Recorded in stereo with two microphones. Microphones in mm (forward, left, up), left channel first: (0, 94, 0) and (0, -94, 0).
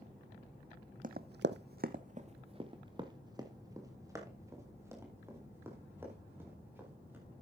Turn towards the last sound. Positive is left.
turn(degrees=-10)  # may be behind; listen again after turning